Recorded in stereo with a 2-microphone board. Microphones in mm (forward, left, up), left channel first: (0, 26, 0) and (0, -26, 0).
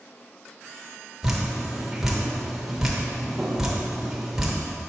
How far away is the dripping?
About 1.0 m.